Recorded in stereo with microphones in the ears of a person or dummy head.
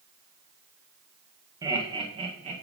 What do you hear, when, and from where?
1.6 s laughter: 15° right (ahead or behind), 1.7 m; by 2.6 s 35° right (ahead or behind), 1.7 m